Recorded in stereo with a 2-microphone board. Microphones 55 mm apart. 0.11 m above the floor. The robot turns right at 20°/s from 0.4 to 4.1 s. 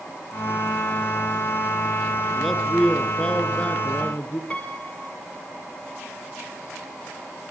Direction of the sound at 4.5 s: 25° left (ahead or behind).